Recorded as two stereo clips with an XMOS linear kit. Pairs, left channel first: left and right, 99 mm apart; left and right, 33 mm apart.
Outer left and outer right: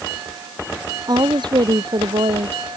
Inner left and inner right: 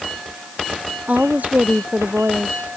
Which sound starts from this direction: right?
A woman speaking, at 1.1 s.